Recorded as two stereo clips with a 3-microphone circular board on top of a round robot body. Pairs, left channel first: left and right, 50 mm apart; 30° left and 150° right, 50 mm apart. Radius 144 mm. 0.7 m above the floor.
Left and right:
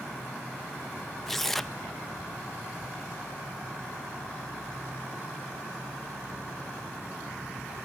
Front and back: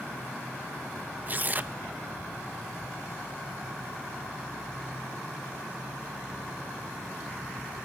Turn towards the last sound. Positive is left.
turn(degrees=170)